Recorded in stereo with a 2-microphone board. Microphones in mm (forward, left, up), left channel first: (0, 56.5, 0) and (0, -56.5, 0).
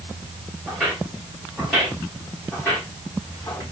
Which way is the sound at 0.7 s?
10° right (ahead or behind).